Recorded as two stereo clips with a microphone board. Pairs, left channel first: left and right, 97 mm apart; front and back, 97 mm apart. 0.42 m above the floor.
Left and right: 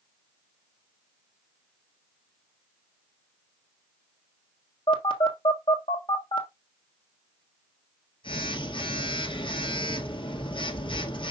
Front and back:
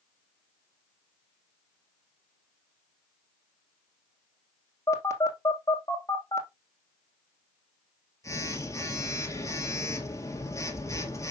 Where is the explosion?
I don't hear an explosion.